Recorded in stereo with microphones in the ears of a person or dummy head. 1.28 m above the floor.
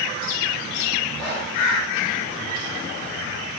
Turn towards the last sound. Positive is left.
turn(degrees=0)  # may be behind; listen again after turning